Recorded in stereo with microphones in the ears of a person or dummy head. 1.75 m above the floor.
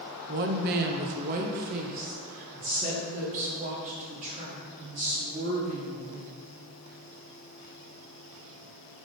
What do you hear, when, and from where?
0.3 s a woman speaking: 50° right (ahead or behind), 0.7 m; by 6.4 s 40° right (ahead or behind), 3.5 m